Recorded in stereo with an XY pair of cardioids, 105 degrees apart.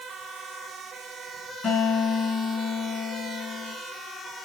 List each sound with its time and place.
1.6 s a guitar: 70° left, 5 m